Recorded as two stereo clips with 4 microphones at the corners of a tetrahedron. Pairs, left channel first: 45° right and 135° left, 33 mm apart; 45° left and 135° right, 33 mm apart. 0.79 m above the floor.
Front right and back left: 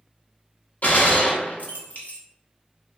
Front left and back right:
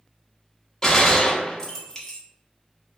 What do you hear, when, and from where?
0.8 s a gunshot: 25° right, 1.1 m